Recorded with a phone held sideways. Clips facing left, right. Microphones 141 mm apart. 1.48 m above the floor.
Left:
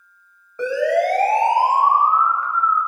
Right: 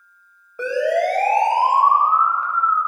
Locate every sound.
0.6 s a siren: 10° right (ahead or behind), 8.5 m; by 2.9 s 25° right (ahead or behind), 9 m